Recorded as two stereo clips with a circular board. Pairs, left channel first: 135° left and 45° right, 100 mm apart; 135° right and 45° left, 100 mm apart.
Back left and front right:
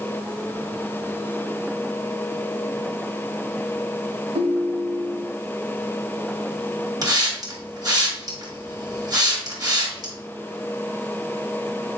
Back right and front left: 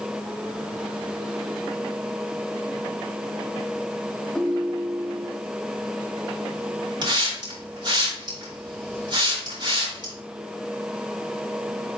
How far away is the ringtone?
About 0.6 m.